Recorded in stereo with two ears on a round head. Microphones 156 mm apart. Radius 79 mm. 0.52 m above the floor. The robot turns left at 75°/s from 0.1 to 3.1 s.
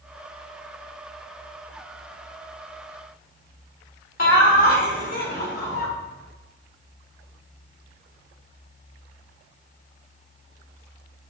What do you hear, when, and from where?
4.2 s laughter: 55° left (ahead or behind), 1.7 m